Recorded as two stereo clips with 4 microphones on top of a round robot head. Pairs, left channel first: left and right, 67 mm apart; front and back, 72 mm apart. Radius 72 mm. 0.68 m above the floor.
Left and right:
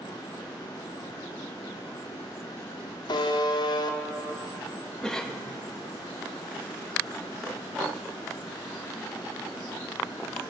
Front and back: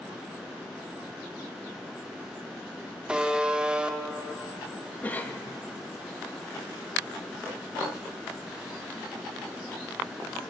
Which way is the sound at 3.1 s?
105° left.